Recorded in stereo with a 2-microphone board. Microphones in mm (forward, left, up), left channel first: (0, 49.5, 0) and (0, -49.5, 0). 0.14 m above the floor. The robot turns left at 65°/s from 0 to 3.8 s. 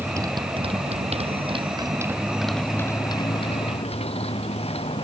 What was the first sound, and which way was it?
A motorcycle, 20° right (ahead or behind).